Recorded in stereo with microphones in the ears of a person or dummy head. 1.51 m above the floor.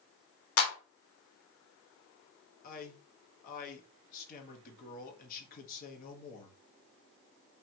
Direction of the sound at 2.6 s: 50° left (ahead or behind).